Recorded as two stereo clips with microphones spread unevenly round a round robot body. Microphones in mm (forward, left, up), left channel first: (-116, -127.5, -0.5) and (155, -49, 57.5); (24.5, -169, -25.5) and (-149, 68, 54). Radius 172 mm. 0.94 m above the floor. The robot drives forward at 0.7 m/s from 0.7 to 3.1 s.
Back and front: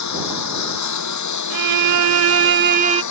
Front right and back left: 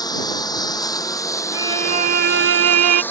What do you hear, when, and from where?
0.0 s a lawn mower: 135° right; by 3.1 s 140° right
1.5 s a violin: 35° left; by 3.0 s 95° left